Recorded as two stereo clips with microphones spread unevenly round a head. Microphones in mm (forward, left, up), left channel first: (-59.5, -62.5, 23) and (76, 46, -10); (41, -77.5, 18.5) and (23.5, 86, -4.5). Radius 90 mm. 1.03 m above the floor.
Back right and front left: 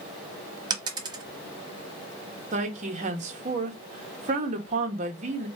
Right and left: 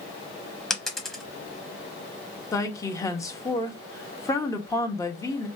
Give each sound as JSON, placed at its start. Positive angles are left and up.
{"t": 0.7, "sound": "a dropped coin", "azimuth_deg": -20, "distance_m": 0.9}
{"t": 2.5, "sound": "a woman speaking", "azimuth_deg": -10, "distance_m": 1.0}